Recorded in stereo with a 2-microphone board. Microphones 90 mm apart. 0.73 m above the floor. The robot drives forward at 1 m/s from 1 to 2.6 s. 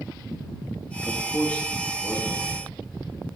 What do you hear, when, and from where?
1.1 s a man speaking: 20° left (ahead or behind), 0.7 m; by 2.8 s 5° left (ahead or behind), 1.9 m